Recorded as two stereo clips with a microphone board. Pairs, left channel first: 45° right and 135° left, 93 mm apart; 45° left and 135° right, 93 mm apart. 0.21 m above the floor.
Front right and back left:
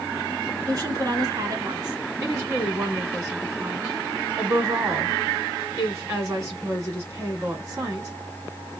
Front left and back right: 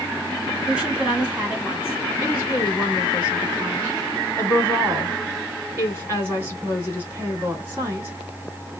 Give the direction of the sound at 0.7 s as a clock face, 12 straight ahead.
7 o'clock.